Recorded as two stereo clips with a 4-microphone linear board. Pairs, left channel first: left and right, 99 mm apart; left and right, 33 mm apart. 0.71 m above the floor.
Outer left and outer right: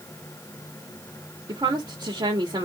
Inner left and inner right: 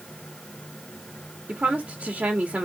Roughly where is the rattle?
No rattle in this recording.